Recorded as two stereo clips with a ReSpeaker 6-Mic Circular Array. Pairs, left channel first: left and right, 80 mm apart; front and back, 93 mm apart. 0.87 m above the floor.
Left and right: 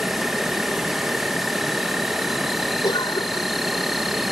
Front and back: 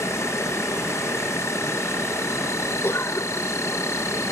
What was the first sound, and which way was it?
An insect, straight ahead.